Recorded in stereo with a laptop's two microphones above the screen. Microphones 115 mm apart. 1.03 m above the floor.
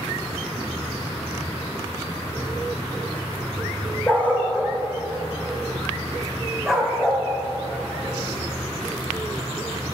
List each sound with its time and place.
4.1 s a dog barking: 15° left (ahead or behind), 1.6 m; by 7.2 s centre (ahead or behind), 3.5 m